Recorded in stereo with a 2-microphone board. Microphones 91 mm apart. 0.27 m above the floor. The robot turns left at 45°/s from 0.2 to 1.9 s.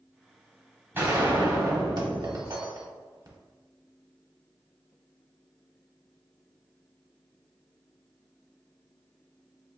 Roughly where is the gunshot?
Ahead right.